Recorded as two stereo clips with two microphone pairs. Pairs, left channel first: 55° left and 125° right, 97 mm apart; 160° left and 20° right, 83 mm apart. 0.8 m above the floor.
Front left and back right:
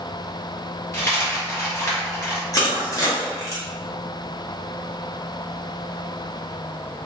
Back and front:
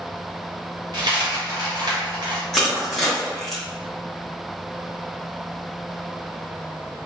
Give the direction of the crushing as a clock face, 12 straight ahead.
9 o'clock.